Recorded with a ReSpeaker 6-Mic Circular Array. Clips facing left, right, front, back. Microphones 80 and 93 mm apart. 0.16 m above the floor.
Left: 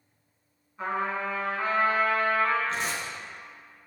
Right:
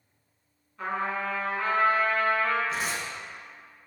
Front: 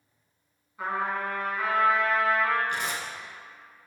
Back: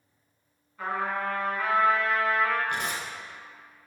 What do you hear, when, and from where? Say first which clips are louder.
0.8 s a trumpet: left 1 dB, even; 55° left, 1.7 m
2.7 s tearing paper: even, even; 175° right, 0.6 m